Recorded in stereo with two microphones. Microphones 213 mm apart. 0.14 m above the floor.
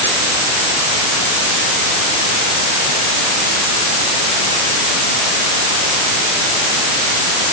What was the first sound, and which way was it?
Only background noise.